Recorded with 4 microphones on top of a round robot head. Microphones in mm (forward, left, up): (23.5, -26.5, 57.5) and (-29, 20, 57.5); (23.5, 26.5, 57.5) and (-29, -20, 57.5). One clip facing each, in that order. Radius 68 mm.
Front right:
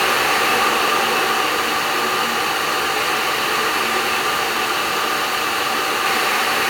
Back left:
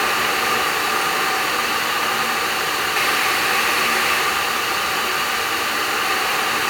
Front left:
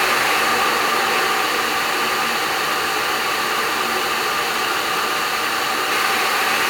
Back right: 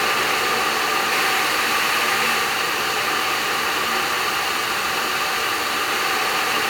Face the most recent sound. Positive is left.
No sound to turn to.